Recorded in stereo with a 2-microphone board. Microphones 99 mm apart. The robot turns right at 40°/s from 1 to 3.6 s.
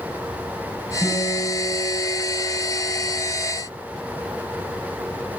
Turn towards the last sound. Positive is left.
turn(degrees=-70)